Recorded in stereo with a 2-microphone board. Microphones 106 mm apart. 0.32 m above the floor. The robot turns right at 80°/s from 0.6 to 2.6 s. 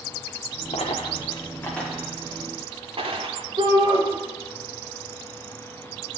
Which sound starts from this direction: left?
A dropped coin, at 0.7 s.